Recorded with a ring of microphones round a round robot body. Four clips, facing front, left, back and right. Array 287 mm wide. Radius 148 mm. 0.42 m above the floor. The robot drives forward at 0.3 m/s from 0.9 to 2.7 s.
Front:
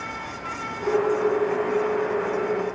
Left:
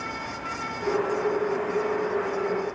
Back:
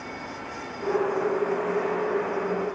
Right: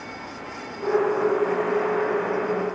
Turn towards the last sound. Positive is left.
No sound to turn to.